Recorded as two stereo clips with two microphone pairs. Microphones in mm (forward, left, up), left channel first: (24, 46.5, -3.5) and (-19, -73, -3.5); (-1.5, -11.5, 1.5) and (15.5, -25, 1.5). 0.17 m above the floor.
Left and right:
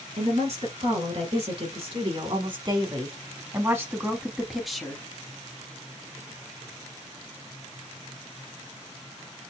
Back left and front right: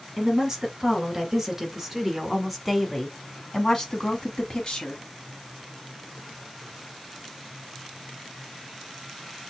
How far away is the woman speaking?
About 2.5 m.